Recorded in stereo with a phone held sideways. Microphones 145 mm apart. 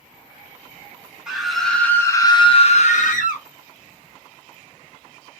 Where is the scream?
5° right (ahead or behind), 1.6 m; by 3.4 s 65° left (ahead or behind), 1.3 m.